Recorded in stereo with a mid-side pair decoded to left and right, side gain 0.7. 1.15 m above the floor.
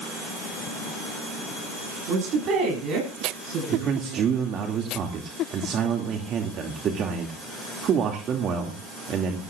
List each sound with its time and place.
2.1 s a woman speaking: 50° right, 10 m; by 4.3 s 55° right, 11 m
3.7 s a man speaking: 40° right, 2.5 m